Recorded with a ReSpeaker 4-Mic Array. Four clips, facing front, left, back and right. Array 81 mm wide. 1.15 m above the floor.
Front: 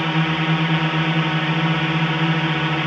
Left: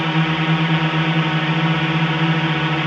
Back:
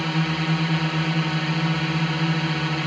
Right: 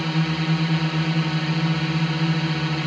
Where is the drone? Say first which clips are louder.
Left 5 dB, front 4 dB; 55° left.